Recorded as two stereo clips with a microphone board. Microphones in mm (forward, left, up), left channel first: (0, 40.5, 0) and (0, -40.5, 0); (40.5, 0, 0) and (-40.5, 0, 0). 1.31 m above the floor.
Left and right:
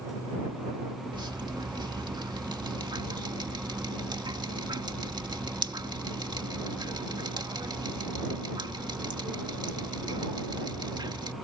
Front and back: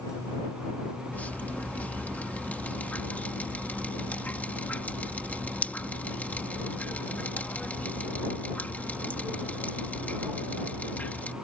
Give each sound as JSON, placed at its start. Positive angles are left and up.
{"t": 1.1, "sound": "dripping", "azimuth_deg": -70}